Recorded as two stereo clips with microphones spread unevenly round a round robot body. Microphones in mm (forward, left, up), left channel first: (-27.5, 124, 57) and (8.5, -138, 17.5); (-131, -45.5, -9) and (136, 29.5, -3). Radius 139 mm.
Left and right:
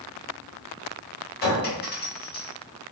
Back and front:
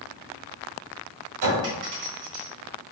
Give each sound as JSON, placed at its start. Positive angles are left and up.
{"t": 1.4, "sound": "a clink", "azimuth_deg": 40, "distance_m": 1.4}